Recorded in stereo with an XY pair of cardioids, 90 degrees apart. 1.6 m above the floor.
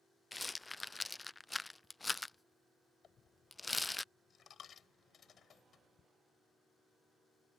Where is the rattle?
20° left.